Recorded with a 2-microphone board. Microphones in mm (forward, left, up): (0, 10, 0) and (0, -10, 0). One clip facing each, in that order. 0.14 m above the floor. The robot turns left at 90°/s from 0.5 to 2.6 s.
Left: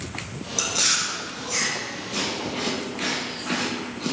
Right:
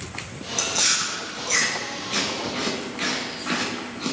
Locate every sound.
0.6 s chewing: 15° left (ahead or behind), 1.0 m; by 4.1 s 15° right (ahead or behind), 1.0 m